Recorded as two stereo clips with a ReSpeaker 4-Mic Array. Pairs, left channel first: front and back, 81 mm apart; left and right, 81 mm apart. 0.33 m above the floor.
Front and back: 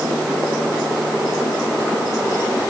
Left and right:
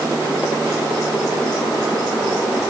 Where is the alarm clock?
I don't hear an alarm clock.